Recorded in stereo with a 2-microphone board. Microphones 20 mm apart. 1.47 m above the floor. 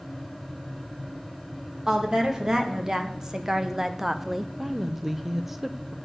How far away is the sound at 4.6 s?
About 0.7 m.